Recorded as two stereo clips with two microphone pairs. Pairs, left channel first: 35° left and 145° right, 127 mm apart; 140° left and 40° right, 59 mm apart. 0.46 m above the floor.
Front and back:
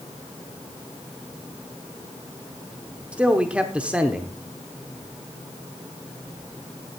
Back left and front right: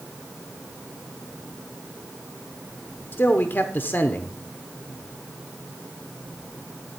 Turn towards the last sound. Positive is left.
turn(degrees=140)